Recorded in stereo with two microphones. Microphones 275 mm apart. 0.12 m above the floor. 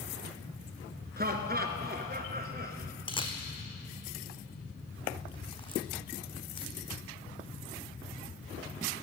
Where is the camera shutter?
20° left (ahead or behind), 1.3 m.